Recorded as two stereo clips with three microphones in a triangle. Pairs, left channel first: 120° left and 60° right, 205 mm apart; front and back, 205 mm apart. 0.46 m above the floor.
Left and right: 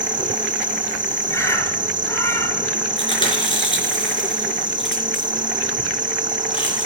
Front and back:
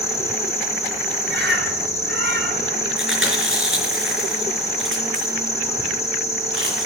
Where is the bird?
165° right, 2 m.